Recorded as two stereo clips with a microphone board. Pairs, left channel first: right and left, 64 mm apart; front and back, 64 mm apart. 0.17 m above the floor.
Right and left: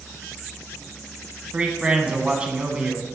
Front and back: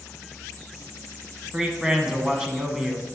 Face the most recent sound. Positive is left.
turn(degrees=120)